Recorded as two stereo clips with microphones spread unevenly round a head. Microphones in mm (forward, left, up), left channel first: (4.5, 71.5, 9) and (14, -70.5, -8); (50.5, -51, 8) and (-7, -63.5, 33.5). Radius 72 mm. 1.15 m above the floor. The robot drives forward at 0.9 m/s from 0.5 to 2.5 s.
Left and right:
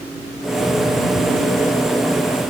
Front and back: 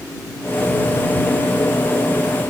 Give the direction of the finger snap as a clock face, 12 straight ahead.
I don't hear a finger snap.